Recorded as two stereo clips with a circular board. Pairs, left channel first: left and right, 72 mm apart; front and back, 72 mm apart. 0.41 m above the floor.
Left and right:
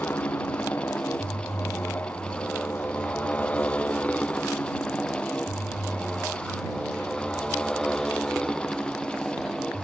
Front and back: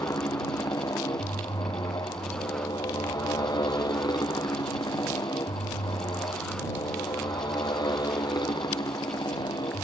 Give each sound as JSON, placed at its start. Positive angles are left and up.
{"t": 0.0, "sound": "a motorcycle", "azimuth_deg": 30}